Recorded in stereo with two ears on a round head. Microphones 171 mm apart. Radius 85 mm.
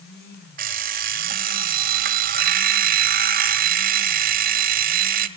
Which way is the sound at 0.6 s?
50° right (ahead or behind).